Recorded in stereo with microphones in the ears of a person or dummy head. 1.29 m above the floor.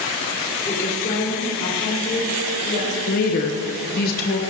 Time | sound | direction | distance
0.7 | a woman speaking | 25° left (ahead or behind) | 4 m
3.1 | a woman speaking | 55° left (ahead or behind) | 0.9 m